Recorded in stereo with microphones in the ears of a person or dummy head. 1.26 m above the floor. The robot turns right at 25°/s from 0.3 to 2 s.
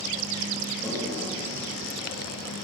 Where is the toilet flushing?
5° left (ahead or behind), 2 m; by 2.4 s 25° right (ahead or behind), 2 m.